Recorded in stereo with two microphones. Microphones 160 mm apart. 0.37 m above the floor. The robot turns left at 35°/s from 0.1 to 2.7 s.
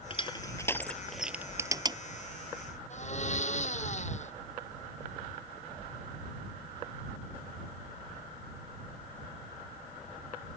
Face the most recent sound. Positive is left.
turn(degrees=50)  # may be behind; listen again after turning